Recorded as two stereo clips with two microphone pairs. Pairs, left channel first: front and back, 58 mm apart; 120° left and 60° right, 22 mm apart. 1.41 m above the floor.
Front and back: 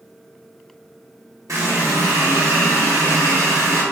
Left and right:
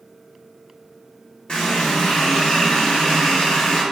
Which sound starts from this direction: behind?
A running tap, at 1.5 s.